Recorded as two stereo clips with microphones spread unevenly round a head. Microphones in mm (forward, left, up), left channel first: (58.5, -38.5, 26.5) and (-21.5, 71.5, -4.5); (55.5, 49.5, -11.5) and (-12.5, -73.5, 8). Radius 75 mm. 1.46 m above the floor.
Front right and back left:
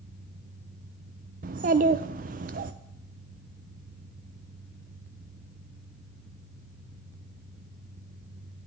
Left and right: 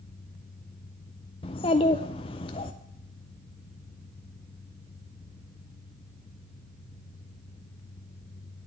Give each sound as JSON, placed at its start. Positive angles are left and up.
{"t": 1.4, "sound": "a child speaking", "azimuth_deg": 115, "distance_m": 0.6}